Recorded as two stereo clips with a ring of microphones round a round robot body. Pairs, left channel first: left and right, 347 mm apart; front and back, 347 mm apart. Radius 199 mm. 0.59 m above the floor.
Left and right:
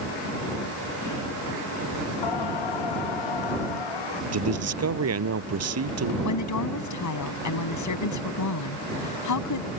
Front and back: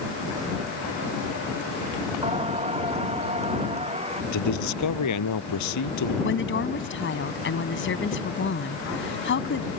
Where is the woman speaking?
55° left.